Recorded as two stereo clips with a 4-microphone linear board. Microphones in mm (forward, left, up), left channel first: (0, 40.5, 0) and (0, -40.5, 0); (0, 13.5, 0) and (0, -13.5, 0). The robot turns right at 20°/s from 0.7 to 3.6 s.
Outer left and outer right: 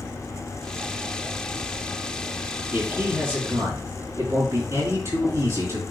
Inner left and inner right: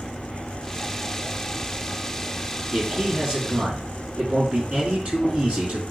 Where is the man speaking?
15° right (ahead or behind), 5 m; by 5.8 s 35° right (ahead or behind), 5 m.